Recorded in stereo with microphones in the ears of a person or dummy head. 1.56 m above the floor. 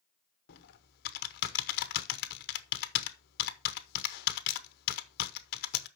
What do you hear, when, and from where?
0.5 s typing on a keyboard: 60° left (ahead or behind), 0.9 m